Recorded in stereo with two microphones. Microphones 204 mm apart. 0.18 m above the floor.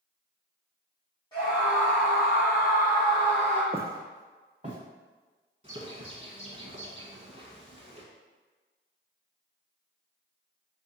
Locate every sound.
1.3 s a scream: 20° left (ahead or behind), 1.4 m; by 3.6 s 35° right (ahead or behind), 1.6 m
3.7 s footsteps: 30° right (ahead or behind), 0.5 m; by 4.8 s 35° right (ahead or behind), 1.3 m
5.6 s a bird: 30° right (ahead or behind), 0.7 m